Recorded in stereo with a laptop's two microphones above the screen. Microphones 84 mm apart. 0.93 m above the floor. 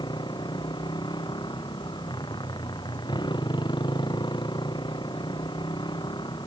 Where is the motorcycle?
65° left (ahead or behind).